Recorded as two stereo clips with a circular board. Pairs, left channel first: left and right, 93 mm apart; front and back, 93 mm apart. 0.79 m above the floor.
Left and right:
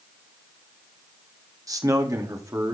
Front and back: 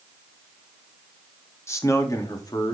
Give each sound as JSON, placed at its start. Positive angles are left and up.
{"t": 1.7, "sound": "a man speaking", "azimuth_deg": -50, "distance_m": 1.5}